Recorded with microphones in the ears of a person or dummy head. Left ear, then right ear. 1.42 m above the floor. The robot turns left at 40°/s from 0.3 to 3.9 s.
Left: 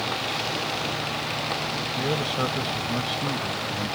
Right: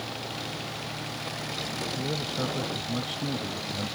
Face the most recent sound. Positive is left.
turn(degrees=-15)